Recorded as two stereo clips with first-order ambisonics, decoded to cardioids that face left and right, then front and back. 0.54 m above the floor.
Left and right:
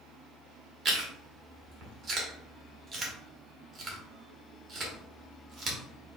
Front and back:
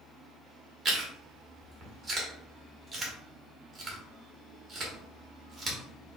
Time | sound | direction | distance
0.8 | chewing | 115° right | 1.2 m